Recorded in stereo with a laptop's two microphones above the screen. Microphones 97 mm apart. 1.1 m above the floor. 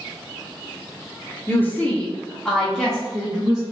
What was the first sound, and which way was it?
A woman speaking, 20° left (ahead or behind).